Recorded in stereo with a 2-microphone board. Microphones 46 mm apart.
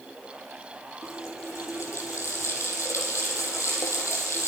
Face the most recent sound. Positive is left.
turn(degrees=80)